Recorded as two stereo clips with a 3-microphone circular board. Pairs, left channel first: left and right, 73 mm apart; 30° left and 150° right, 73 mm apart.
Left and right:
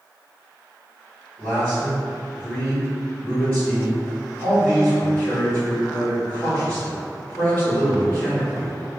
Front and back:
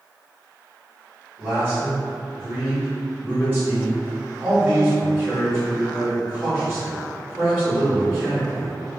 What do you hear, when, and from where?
1.4 s a man speaking: 155° left, 1.6 m